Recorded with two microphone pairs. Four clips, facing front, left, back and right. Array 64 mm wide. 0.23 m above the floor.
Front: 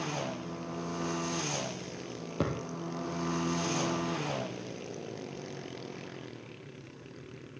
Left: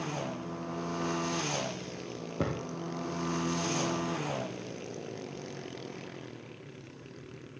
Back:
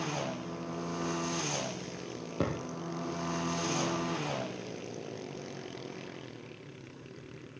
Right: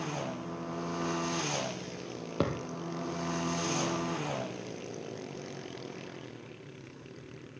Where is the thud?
80° right, 2.5 m.